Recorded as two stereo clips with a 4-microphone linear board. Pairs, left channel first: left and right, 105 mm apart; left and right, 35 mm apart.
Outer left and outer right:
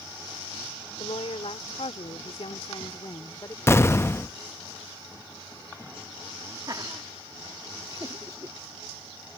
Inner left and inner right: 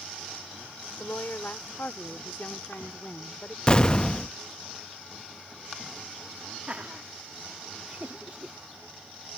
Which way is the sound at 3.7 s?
25° left (ahead or behind).